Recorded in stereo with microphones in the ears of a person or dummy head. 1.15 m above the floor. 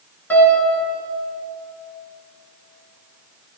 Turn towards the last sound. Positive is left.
turn(degrees=5)  # may be behind; listen again after turning